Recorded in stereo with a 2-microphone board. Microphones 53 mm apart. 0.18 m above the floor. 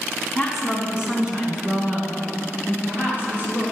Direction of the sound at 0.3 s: Centre (ahead or behind).